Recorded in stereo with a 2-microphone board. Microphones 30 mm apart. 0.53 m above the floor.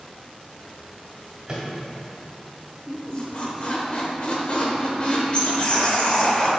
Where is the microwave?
25° right (ahead or behind), 1.9 m.